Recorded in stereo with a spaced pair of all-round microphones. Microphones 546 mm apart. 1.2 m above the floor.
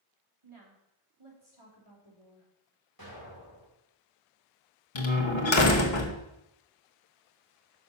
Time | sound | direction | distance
0.4 | a woman speaking | 60° right (ahead or behind) | 2.5 m
3.0 | an explosion | 40° right (ahead or behind) | 3 m
5.0 | a door slam | 55° left (ahead or behind) | 1.0 m